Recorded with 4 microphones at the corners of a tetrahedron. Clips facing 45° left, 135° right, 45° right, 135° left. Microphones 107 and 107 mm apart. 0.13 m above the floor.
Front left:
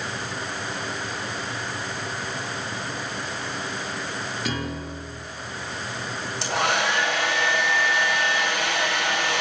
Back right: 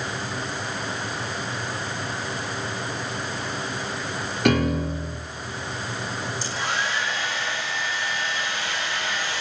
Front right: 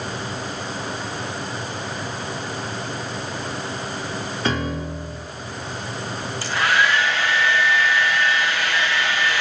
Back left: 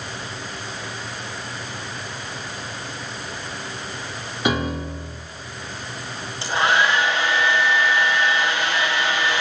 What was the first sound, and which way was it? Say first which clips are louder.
A piano: back right 13 dB, back left 3 dB; 150° right.